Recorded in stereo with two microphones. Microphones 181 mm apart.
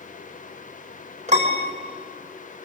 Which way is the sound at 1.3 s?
40° right (ahead or behind).